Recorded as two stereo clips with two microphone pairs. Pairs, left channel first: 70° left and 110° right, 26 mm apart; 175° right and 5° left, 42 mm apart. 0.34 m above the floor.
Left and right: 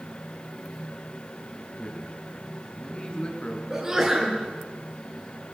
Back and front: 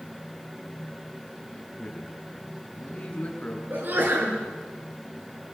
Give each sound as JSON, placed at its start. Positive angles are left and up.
{"t": 1.5, "sound": "a man speaking", "azimuth_deg": 125, "distance_m": 5.0}
{"t": 3.7, "sound": "a sneeze", "azimuth_deg": -35, "distance_m": 5.5}